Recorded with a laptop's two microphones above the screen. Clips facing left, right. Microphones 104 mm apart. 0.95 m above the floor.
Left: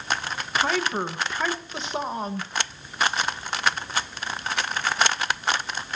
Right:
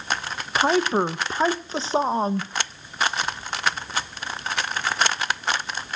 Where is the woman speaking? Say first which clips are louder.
Right 5 dB; 30° right (ahead or behind), 0.8 m.